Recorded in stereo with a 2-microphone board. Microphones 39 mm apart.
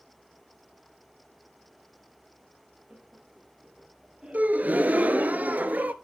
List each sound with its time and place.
2.9 s laughter: 30° right (ahead or behind), 3 m; by 5.2 s 25° right (ahead or behind), 4.5 m
4.3 s a gasp: 45° right (ahead or behind), 0.7 m